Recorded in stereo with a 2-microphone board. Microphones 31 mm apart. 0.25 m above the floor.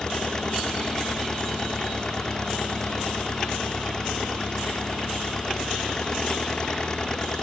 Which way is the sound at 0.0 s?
25° left (ahead or behind).